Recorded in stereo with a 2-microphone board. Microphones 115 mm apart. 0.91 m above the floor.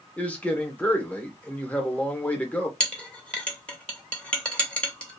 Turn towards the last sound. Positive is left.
turn(degrees=10)  # may be behind; listen again after turning